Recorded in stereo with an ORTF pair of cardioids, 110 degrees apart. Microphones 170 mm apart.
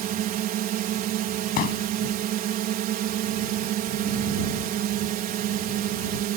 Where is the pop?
65° left.